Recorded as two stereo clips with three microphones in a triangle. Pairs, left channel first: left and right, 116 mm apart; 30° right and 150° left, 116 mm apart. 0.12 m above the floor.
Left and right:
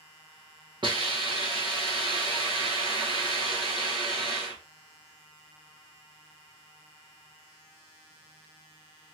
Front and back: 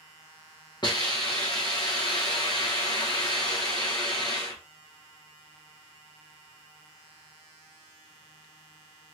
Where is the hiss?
65° right, 1.8 m.